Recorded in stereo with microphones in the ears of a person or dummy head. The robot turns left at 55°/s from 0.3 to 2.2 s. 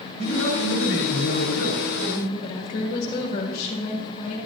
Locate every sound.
0.2 s a man speaking: 120° left, 3.5 m; by 2.3 s 20° left, 3.5 m
2.4 s a woman speaking: 35° left (ahead or behind), 1.9 m